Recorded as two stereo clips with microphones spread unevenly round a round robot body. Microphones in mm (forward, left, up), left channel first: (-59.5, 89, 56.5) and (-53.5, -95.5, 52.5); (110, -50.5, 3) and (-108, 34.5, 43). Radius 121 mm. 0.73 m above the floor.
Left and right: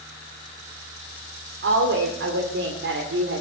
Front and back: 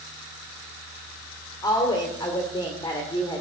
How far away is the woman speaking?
About 2 m.